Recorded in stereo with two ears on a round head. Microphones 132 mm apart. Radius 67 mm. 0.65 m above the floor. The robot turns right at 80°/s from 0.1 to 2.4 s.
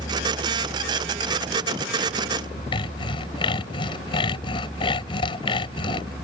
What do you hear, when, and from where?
2.7 s sawing: 35° left (ahead or behind)